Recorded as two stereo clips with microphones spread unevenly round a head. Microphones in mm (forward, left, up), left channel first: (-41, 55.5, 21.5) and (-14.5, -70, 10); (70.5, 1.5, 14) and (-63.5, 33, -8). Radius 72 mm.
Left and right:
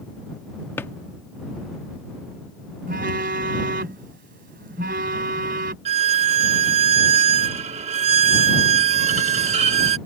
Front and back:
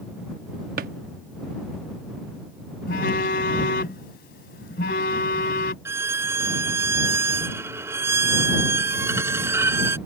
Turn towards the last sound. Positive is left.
turn(degrees=-115)